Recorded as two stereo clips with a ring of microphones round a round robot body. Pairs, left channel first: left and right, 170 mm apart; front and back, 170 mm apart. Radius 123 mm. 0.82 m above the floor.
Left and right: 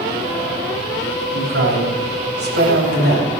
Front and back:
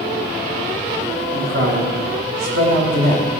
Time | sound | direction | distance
1.3 | a man speaking | 130° right | 3.5 m